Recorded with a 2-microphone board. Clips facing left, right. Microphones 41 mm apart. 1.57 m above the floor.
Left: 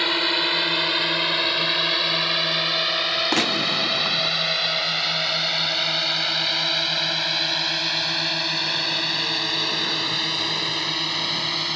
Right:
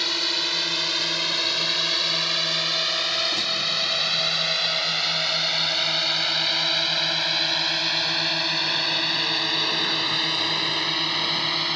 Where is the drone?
25° left (ahead or behind); by 11.8 s 5° right (ahead or behind).